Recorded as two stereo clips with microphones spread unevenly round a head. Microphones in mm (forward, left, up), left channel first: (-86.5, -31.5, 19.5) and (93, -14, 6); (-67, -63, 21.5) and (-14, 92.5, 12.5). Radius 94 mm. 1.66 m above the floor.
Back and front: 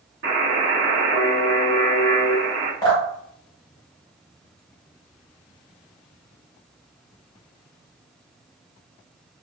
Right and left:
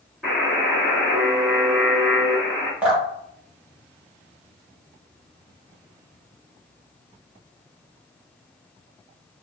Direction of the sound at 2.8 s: 150° left.